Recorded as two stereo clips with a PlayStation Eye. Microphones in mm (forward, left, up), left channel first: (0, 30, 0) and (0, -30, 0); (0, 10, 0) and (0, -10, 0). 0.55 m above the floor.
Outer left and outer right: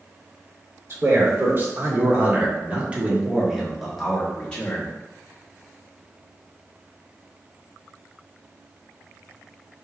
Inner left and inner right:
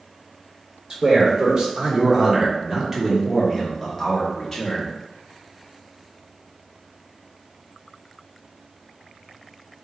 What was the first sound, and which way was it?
A man speaking, 45° right (ahead or behind).